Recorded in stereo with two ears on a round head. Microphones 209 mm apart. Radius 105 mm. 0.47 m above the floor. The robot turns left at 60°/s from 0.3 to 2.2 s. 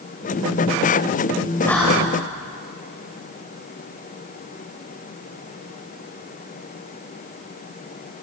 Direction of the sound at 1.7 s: 10° left (ahead or behind).